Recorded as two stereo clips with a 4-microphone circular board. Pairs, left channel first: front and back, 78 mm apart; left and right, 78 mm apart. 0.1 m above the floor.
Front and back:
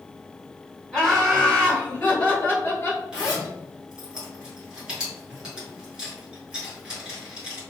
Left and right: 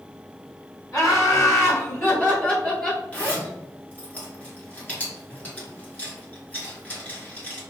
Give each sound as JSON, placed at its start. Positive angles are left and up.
{"t": 0.9, "sound": "laughter", "azimuth_deg": 80, "distance_m": 1.9}
{"t": 3.1, "sound": "a zipper", "azimuth_deg": 125, "distance_m": 1.6}